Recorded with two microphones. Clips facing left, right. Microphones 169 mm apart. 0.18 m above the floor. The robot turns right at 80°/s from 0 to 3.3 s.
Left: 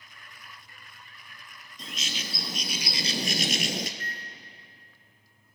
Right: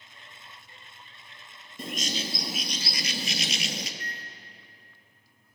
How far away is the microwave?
About 1.3 m.